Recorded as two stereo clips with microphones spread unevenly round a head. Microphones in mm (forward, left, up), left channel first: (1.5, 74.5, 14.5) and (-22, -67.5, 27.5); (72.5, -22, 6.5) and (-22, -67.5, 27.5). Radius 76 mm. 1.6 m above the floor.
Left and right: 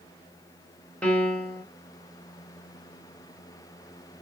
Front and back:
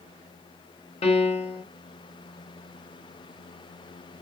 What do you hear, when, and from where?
1.0 s a piano: 5° right, 0.9 m